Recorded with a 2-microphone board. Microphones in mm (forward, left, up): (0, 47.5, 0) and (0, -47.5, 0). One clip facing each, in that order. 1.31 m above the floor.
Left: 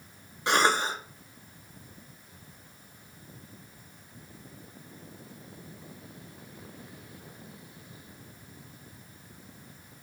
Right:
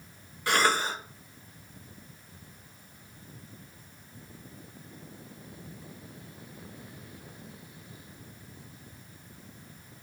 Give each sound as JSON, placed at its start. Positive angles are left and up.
{"t": 0.5, "sound": "a cough", "side_deg": 25, "distance_m": 0.7}